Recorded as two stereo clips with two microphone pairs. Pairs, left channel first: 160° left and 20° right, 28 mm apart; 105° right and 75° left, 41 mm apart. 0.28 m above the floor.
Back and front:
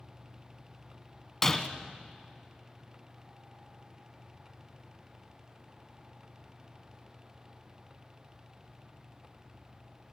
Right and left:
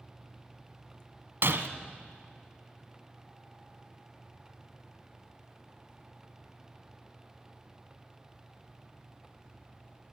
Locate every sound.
1.4 s breaking glass: 85° left, 1.6 m